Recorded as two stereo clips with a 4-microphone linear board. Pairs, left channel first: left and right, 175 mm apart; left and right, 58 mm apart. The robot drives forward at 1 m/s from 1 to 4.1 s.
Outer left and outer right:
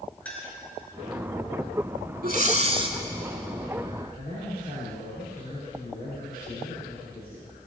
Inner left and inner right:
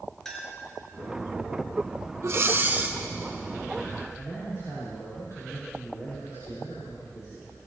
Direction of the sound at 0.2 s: 10° left (ahead or behind).